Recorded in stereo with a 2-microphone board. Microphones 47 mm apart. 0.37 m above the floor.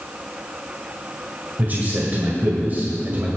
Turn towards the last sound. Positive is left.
turn(degrees=-40)  # may be behind; listen again after turning